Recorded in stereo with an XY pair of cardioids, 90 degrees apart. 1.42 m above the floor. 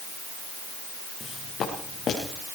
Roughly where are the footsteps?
Left.